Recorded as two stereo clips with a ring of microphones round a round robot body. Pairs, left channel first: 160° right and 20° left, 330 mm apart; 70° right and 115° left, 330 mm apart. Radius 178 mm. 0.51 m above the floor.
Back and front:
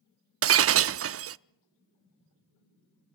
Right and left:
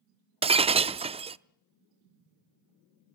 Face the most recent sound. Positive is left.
turn(degrees=45)